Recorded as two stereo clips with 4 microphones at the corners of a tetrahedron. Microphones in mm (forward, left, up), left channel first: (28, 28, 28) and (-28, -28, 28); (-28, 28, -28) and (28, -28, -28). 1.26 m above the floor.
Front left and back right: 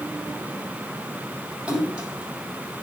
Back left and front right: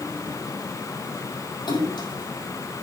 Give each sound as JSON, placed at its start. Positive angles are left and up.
{"t": 1.7, "sound": "a splash", "azimuth_deg": 150, "distance_m": 7.0}